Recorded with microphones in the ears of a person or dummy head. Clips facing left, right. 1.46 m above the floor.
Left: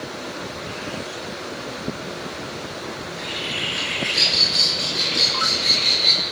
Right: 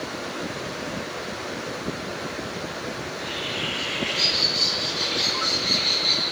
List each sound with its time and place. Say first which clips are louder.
3.0 s a bird: left 1 dB; 70° left (ahead or behind), 5 m